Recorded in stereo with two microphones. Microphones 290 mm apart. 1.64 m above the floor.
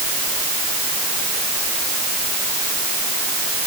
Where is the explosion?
No explosion in this recording.